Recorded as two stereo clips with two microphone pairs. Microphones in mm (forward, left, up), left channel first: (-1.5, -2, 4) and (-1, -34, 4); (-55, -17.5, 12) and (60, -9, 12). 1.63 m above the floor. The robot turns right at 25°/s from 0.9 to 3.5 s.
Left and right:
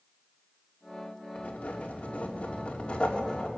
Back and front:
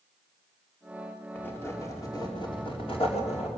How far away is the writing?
About 3.5 m.